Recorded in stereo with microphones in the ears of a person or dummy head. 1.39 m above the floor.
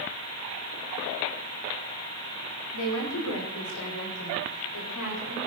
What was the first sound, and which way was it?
A woman speaking, 80° left.